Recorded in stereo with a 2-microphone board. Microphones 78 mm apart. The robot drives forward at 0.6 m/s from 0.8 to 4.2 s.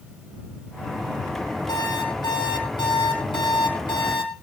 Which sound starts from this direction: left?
An alarm clock, at 1.7 s.